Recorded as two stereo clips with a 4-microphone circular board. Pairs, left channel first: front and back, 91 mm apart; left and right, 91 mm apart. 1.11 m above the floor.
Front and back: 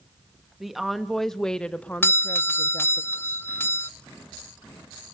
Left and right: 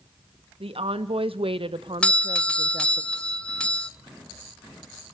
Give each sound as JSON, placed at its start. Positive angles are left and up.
{"t": 0.6, "sound": "a woman speaking", "azimuth_deg": -95, "distance_m": 1.7}
{"t": 2.0, "sound": "a doorbell", "azimuth_deg": 25, "distance_m": 0.5}